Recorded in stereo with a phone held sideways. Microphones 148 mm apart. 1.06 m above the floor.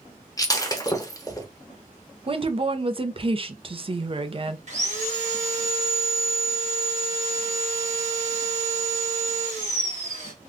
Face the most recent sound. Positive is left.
turn(degrees=-50)  # may be behind; listen again after turning